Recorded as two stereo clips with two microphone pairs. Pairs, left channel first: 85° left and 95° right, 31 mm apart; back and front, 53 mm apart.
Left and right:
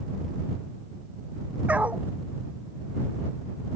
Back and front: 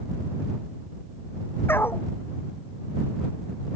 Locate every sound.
1.7 s a dog barking: 135° right